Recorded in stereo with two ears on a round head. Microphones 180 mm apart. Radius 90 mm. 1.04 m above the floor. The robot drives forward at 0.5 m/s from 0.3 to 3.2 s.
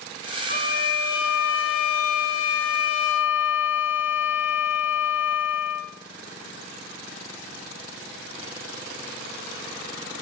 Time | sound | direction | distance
0.5 | a violin | 45° left (ahead or behind) | 1.4 m